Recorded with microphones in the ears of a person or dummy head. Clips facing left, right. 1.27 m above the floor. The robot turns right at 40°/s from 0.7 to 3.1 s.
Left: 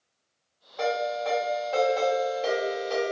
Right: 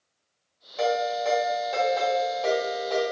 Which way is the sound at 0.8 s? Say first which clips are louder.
Right 2 dB; 50° right.